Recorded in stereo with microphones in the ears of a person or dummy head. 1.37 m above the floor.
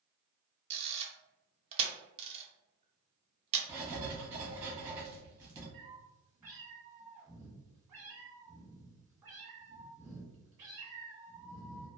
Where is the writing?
20° right (ahead or behind), 1.3 m.